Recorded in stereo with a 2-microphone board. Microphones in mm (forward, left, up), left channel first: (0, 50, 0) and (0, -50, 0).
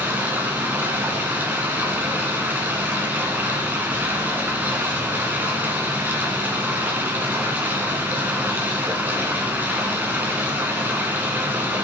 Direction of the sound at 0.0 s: 20° right (ahead or behind).